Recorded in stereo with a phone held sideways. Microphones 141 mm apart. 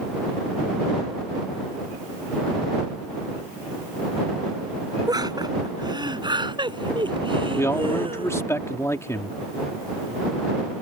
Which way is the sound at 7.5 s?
20° left (ahead or behind).